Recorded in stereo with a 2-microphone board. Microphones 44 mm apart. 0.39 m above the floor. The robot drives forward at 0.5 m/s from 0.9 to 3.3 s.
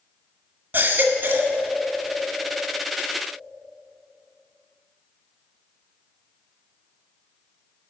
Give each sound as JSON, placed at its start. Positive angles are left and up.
{"t": 0.7, "sound": "a baby crying", "side_deg": -55, "distance_m": 1.2}